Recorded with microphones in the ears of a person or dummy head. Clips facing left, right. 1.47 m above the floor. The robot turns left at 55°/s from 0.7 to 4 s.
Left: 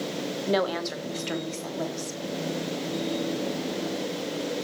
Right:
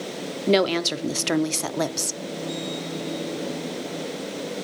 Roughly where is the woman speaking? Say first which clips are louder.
Right 7 dB; ahead right.